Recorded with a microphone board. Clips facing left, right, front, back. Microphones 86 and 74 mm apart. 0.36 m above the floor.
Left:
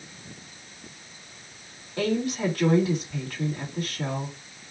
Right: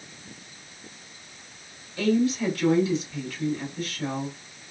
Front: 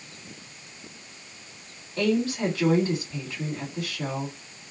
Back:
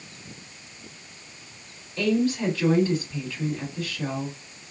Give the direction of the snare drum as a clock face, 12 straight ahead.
I don't hear a snare drum.